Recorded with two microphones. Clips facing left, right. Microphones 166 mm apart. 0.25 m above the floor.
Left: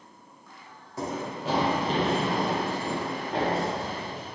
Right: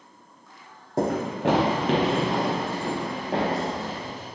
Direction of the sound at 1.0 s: 60° right (ahead or behind).